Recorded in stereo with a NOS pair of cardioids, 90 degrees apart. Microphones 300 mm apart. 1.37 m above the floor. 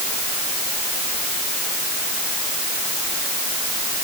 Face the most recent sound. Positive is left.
No sound to turn to.